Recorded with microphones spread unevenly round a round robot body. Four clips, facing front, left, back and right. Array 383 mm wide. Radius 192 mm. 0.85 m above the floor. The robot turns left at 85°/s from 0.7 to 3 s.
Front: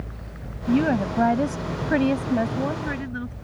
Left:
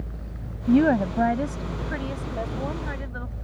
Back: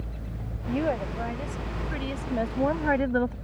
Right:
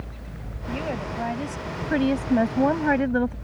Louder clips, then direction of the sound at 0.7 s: Left 11 dB, front 6 dB; 80° left.